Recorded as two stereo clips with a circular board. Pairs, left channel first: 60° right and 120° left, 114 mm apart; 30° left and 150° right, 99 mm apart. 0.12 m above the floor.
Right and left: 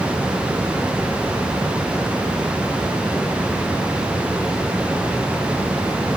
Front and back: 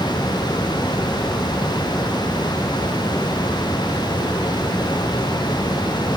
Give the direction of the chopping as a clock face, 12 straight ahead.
No chopping in this recording.